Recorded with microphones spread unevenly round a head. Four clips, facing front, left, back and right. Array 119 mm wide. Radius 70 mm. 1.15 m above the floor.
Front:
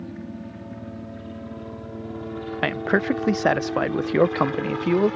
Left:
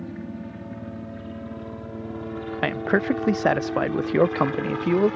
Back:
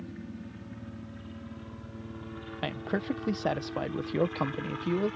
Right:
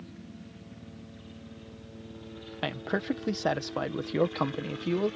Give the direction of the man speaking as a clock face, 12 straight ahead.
12 o'clock.